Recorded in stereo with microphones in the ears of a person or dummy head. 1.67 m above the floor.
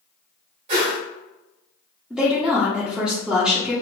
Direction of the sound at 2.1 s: 5° right (ahead or behind).